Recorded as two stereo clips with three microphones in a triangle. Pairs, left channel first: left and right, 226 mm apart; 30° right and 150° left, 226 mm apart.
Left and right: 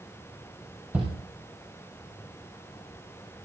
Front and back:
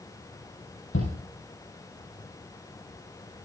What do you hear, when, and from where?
0.9 s a shout: 5° right, 4 m